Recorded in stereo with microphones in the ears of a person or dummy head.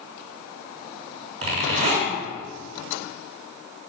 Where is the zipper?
35° right (ahead or behind), 1.8 m.